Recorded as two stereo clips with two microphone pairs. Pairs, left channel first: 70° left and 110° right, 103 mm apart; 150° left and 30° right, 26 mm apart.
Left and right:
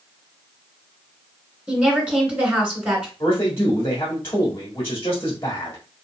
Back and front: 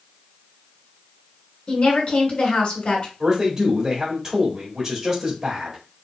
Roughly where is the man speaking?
Ahead.